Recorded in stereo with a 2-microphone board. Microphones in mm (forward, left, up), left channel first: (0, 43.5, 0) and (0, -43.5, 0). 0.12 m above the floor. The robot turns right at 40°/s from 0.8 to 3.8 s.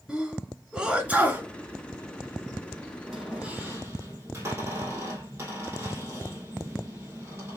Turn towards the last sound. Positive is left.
turn(degrees=-30)  # may be behind; listen again after turning